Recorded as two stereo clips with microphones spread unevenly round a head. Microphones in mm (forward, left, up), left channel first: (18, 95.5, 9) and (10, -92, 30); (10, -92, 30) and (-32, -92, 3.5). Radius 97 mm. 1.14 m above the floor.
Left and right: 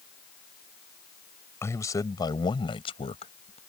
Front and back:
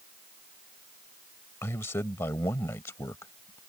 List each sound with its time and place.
1.6 s a man speaking: 10° left; by 3.6 s 30° left